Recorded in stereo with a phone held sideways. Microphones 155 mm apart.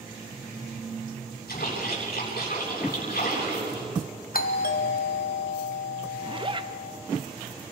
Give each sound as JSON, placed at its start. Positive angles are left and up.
{"t": 1.5, "sound": "a splash", "side_deg": 85, "distance_m": 8.5}
{"t": 4.3, "sound": "a doorbell", "side_deg": 65, "distance_m": 1.5}
{"t": 6.2, "sound": "a zipper", "side_deg": -35, "distance_m": 0.9}